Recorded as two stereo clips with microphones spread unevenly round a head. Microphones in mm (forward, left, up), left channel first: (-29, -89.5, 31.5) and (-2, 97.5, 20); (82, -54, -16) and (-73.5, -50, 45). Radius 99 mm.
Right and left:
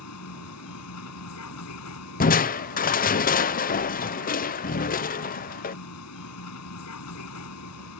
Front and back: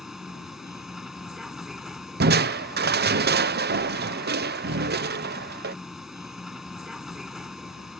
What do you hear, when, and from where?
0.0 s a vehicle: 100° right
2.2 s crushing: 145° right